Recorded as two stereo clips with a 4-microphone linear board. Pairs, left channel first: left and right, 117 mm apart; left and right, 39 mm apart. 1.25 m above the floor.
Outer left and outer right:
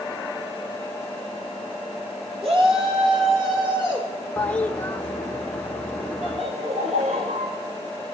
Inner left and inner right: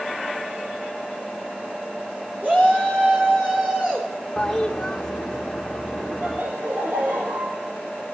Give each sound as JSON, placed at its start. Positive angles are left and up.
{"t": 2.4, "sound": "a shout", "side_deg": -55, "distance_m": 3.5}
{"t": 4.4, "sound": "a toilet flushing", "side_deg": 15, "distance_m": 0.9}
{"t": 6.2, "sound": "laughter", "side_deg": -70, "distance_m": 2.0}